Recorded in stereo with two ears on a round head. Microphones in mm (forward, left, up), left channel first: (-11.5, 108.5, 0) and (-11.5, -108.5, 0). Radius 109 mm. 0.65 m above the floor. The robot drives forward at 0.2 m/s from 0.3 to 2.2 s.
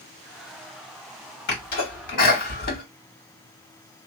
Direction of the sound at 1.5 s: 45° left (ahead or behind).